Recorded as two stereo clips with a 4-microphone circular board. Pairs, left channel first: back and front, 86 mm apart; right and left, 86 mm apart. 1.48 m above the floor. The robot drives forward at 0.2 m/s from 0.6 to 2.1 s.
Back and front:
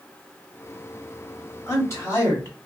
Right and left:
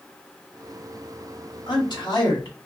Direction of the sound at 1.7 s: 120° right.